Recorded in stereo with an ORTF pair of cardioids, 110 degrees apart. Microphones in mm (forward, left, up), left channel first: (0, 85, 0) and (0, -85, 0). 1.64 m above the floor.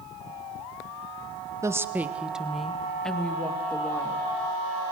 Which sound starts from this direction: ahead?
A woman speaking, at 1.6 s.